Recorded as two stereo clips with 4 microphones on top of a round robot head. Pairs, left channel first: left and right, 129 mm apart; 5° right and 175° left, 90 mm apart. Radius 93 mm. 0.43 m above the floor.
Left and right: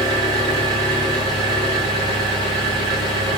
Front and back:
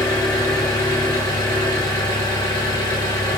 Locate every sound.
0.0 s an engine running: 30° left, 1.3 m